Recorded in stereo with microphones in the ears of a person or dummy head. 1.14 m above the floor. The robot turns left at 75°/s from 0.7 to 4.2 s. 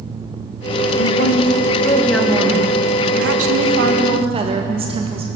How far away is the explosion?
No explosion in this recording.